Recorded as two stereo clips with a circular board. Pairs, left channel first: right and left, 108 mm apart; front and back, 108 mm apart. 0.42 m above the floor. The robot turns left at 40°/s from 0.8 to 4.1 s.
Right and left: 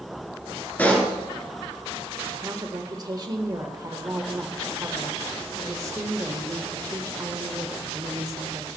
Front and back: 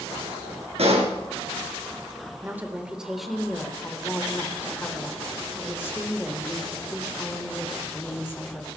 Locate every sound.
0.8 s a pop: 165° right, 2.5 m; by 1.1 s 175° right, 2.5 m
2.4 s a woman speaking: 125° left, 1.3 m; by 8.7 s 55° left, 1.3 m